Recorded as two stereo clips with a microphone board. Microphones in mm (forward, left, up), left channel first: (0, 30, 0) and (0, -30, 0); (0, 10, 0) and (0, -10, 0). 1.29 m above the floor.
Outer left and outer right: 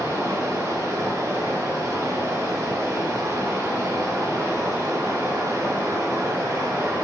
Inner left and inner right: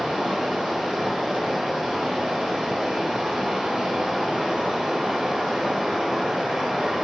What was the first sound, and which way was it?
Running water, 60° right (ahead or behind).